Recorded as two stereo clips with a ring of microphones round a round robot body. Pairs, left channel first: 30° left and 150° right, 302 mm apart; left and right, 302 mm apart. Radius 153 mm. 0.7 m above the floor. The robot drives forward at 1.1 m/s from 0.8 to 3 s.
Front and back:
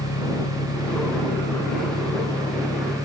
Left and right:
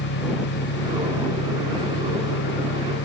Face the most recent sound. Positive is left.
turn(degrees=110)